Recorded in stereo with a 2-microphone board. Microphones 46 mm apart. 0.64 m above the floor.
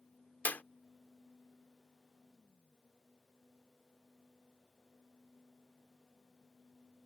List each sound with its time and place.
0.5 s a clap: 40° left (ahead or behind)